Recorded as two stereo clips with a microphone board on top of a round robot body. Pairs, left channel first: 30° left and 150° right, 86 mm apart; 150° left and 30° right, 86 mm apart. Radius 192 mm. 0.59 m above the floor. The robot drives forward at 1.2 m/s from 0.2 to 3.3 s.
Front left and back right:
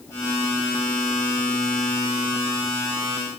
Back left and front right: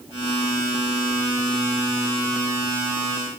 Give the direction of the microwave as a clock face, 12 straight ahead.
No microwave in this recording.